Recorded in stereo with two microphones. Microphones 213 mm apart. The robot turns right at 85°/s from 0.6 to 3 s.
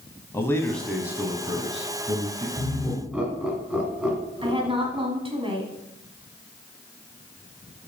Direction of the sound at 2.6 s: 25° left (ahead or behind).